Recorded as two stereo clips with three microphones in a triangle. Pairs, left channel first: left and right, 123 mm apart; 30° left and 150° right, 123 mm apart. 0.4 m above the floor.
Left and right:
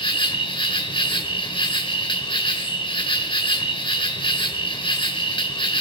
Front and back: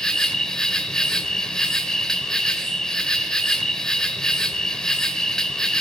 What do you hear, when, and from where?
0.0 s an insect: 115° left, 1.5 m